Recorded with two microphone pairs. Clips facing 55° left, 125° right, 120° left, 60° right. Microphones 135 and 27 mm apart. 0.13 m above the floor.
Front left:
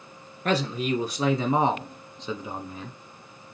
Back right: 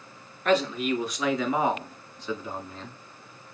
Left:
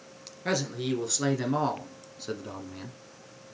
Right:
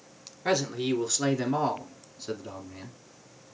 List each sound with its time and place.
0.5 s a man speaking: 15° left, 1.7 m; by 3.0 s 120° left, 1.1 m